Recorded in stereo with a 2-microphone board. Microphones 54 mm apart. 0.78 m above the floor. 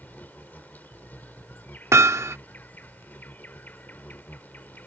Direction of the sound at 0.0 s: 40° left (ahead or behind).